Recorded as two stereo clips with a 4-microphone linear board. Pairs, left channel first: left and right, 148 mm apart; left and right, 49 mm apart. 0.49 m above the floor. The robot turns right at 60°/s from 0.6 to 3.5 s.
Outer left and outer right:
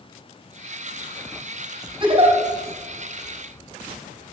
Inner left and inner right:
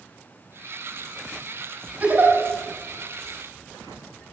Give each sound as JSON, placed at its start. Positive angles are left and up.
{"t": 2.0, "sound": "a giggle", "side_deg": -30, "distance_m": 3.5}